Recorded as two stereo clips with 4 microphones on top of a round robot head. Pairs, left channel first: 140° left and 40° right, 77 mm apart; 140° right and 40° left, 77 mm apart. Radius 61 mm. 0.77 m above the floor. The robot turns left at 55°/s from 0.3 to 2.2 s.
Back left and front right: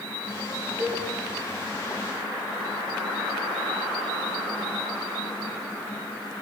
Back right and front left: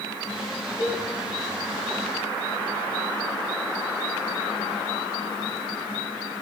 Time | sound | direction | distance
0.8 | a cowbell | 95° right | 2.5 m